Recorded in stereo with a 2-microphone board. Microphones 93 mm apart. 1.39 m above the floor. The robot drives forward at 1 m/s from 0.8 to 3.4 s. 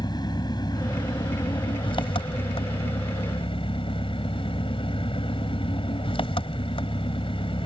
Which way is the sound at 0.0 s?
50° left (ahead or behind).